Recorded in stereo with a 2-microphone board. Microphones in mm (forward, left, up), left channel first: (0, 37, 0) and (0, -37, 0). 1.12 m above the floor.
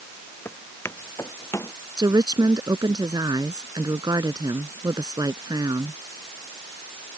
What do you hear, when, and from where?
0.5 s footsteps: 30° left (ahead or behind); by 1.7 s 40° left (ahead or behind)
2.0 s a woman speaking: 65° right (ahead or behind)